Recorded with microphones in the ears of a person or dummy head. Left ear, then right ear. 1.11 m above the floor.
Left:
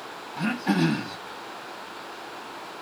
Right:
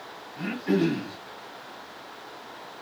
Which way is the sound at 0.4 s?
45° left (ahead or behind).